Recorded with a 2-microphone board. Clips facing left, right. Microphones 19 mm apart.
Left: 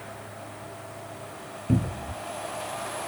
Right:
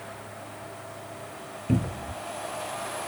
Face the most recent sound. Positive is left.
turn(degrees=-15)  # may be behind; listen again after turning